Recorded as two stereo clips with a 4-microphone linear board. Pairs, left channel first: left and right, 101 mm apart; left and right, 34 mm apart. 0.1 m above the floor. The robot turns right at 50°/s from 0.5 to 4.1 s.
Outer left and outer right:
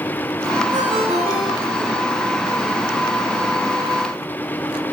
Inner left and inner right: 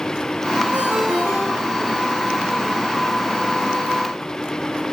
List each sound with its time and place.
0.7 s a ringtone: 130° right, 5.5 m; by 1.9 s 70° right, 5.5 m